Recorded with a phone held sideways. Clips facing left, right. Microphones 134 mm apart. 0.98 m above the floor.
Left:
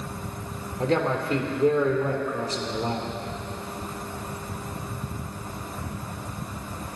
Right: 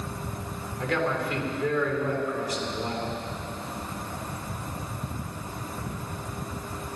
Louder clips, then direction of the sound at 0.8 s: Left 3 dB; 30° left (ahead or behind).